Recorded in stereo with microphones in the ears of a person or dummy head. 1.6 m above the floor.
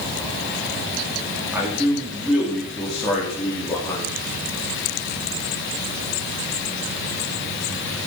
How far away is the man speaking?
About 4 m.